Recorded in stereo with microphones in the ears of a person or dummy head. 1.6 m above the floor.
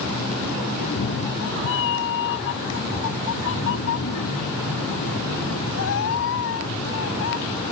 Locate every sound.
0.8 s a cat meowing: 55° left (ahead or behind); by 7.4 s 70° left (ahead or behind)